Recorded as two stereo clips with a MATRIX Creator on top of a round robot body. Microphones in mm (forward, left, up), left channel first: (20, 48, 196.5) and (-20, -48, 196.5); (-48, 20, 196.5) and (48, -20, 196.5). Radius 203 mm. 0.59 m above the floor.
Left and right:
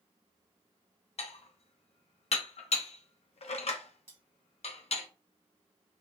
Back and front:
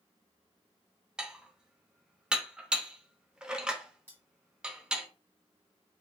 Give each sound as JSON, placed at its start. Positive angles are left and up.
{"t": 1.2, "sound": "dishes clattering", "azimuth_deg": 60, "distance_m": 0.5}
{"t": 4.1, "sound": "cutlery clinking", "azimuth_deg": -95, "distance_m": 1.6}